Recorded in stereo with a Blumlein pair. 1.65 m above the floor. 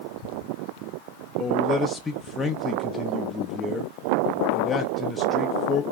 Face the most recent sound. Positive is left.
turn(degrees=10)